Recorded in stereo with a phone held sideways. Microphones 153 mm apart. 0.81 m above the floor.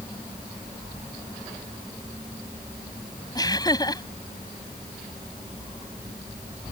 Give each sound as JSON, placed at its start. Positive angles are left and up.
{"t": 3.4, "sound": "laughter", "side_deg": 25}